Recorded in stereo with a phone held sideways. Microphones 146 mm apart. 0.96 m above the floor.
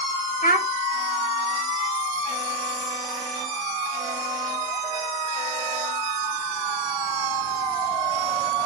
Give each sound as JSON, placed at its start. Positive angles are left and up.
{"t": 0.4, "sound": "a child speaking", "side_deg": 80, "distance_m": 1.0}